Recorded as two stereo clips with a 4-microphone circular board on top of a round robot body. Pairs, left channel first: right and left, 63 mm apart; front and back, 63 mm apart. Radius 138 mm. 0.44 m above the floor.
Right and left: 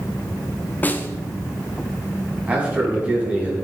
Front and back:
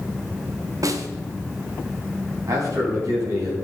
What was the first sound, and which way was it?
A snare drum, 155° right.